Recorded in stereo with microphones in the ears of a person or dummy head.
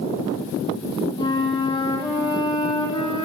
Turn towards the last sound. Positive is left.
turn(degrees=20)  # may be behind; listen again after turning